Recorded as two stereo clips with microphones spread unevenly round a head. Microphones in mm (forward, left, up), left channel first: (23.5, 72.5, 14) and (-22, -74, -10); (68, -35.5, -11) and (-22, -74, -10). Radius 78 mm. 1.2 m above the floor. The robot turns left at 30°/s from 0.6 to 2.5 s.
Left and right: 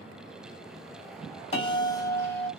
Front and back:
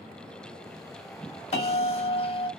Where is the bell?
15° left, 1.1 m; by 2.5 s 10° right, 1.1 m.